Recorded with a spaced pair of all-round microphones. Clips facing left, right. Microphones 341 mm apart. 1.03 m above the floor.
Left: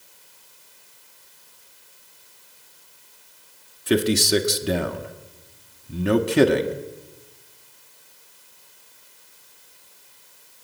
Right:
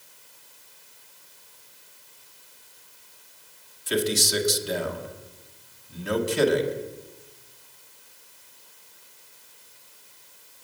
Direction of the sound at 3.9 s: 70° left (ahead or behind).